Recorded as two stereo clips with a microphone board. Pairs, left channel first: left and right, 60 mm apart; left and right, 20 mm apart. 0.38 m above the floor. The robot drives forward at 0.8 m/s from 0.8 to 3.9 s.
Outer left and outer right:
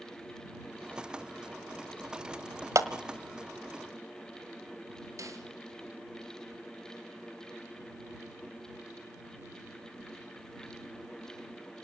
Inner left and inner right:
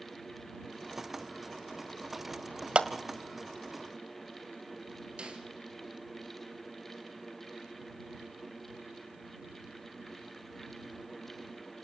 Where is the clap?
60° right (ahead or behind), 1.6 m.